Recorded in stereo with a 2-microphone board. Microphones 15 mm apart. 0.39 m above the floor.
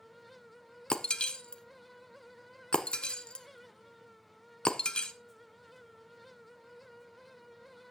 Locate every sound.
0.9 s breaking glass: 70° left (ahead or behind), 0.8 m